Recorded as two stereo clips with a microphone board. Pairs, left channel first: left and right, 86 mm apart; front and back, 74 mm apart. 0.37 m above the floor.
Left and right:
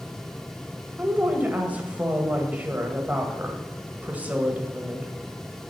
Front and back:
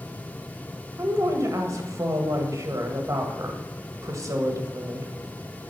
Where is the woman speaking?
160° right, 1.6 m.